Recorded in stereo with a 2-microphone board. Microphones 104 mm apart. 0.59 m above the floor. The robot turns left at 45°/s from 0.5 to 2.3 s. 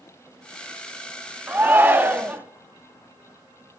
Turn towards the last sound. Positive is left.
turn(degrees=-20)  # may be behind; listen again after turning